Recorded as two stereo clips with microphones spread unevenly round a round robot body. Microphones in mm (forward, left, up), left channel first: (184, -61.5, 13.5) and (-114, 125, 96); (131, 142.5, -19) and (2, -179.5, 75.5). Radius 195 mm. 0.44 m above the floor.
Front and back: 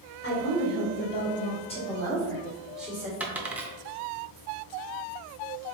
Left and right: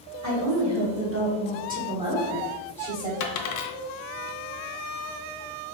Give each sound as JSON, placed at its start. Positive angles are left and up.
{"t": 0.2, "sound": "a woman speaking", "azimuth_deg": -70, "distance_m": 1.7}
{"t": 3.2, "sound": "a dropped coin", "azimuth_deg": 55, "distance_m": 0.6}